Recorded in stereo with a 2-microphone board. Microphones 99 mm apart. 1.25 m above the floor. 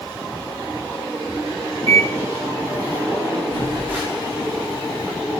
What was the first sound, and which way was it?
A microwave, 35° right (ahead or behind).